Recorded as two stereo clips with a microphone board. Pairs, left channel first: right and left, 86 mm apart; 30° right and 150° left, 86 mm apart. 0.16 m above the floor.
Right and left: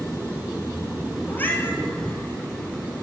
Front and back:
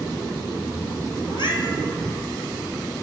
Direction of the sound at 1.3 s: 25° right.